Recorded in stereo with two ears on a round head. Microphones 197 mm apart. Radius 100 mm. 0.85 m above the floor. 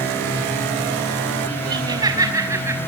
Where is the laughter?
20° right (ahead or behind), 5.5 m; by 2.8 s 10° right (ahead or behind), 4.5 m.